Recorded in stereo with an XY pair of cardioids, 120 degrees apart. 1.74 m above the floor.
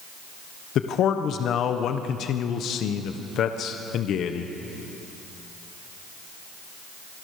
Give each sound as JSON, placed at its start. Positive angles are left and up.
{"t": 0.8, "sound": "a man speaking", "azimuth_deg": 60, "distance_m": 1.4}